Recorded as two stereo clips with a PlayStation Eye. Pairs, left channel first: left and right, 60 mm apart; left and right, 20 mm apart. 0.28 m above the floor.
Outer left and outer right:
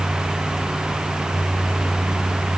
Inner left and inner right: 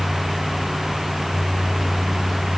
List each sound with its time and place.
Only background noise.